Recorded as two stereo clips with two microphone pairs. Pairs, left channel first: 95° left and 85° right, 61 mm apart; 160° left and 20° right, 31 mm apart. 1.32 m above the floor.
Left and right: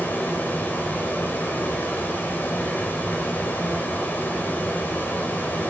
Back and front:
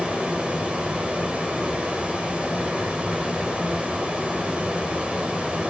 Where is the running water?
35° left, 4 m.